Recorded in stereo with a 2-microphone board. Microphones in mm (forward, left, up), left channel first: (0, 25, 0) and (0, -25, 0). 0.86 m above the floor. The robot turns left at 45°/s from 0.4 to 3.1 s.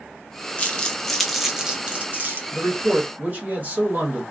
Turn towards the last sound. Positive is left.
turn(degrees=-35)  # may be behind; listen again after turning